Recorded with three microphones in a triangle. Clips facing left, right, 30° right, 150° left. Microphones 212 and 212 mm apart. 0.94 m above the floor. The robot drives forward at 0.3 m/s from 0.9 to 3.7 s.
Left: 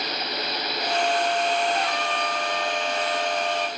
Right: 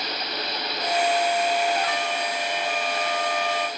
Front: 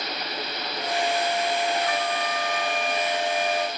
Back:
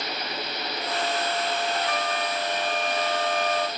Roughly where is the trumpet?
Ahead left.